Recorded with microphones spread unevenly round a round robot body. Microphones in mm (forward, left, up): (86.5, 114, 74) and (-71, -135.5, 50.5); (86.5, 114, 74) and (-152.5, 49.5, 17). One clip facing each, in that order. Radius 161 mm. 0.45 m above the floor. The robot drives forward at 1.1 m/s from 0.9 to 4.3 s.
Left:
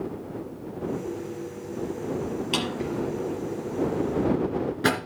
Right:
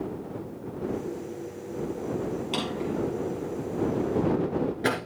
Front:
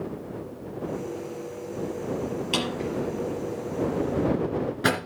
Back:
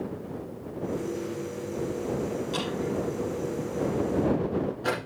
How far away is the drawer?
About 5 m.